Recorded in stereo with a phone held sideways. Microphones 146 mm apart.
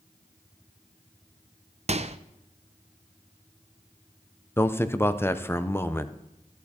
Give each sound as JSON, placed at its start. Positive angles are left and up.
{"t": 1.9, "sound": "a microwave", "side_deg": -45, "distance_m": 0.5}
{"t": 4.6, "sound": "a man speaking", "side_deg": 15, "distance_m": 0.7}